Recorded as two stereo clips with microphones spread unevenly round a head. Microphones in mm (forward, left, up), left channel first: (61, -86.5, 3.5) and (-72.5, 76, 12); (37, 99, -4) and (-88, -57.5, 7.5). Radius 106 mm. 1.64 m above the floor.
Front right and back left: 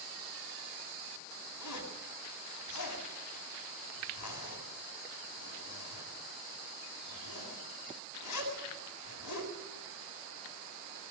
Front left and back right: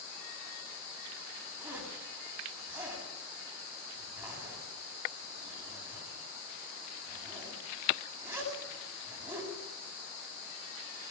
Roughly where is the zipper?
Ahead right.